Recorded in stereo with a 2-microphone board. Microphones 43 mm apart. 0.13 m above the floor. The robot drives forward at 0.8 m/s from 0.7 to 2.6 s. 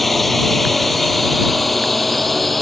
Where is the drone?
5° left (ahead or behind).